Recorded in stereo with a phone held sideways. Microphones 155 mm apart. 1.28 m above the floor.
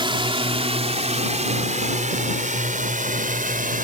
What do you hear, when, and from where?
0.0 s a drone: 35° right (ahead or behind); by 3.8 s 60° right (ahead or behind)